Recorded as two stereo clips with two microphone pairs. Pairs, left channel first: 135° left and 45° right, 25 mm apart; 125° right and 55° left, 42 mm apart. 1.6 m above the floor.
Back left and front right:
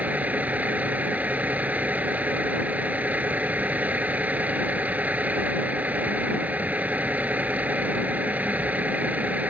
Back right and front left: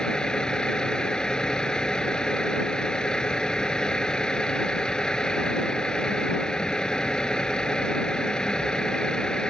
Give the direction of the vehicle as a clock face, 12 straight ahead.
2 o'clock.